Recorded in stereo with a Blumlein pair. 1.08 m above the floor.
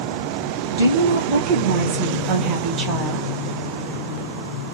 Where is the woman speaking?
55° right, 2.5 m; by 3.3 s 25° right, 1.2 m.